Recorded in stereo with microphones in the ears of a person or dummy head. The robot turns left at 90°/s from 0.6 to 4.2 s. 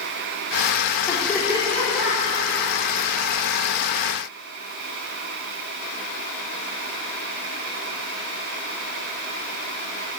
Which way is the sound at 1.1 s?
20° left (ahead or behind).